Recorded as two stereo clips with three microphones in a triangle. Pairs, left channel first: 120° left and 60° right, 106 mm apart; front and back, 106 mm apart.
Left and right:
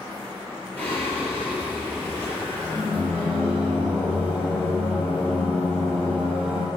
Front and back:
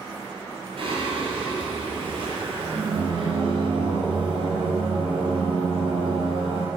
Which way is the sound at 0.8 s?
165° right.